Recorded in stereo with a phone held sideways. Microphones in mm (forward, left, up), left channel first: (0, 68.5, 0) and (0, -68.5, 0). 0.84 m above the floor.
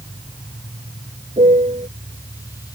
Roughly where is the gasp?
No gasp in this recording.